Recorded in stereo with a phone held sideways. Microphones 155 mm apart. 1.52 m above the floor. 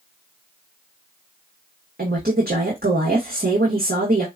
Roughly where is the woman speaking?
Right.